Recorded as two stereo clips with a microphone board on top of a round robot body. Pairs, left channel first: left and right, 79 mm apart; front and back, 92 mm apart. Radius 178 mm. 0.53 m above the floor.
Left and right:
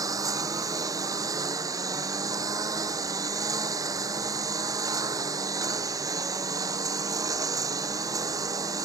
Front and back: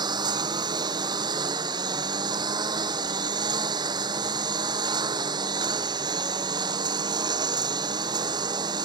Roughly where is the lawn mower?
Behind right.